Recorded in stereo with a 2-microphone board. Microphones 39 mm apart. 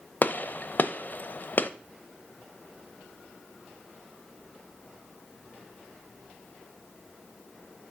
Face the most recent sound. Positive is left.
turn(degrees=50)  # may be behind; listen again after turning